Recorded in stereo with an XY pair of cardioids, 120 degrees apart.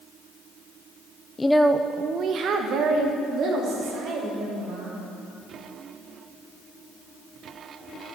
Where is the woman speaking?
20° left, 0.5 m; by 5.0 s 70° right, 4.5 m.